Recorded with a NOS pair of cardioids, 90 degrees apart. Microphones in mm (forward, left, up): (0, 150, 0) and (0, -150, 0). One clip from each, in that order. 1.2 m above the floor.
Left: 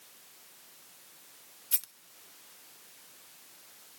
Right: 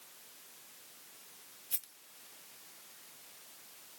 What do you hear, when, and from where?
1.7 s a rattle: 30° left, 0.6 m